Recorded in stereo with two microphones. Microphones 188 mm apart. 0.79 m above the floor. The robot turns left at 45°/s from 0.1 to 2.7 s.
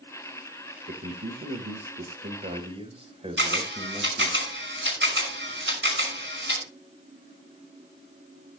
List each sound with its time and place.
0.9 s a man speaking: 65° right, 4 m; by 4.4 s 150° right, 4 m
3.4 s a camera shutter: 80° right, 6 m